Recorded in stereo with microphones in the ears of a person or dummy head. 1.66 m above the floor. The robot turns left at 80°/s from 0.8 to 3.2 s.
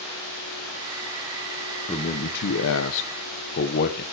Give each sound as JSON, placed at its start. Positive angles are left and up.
{"t": 1.9, "sound": "a man speaking", "azimuth_deg": 160, "distance_m": 1.0}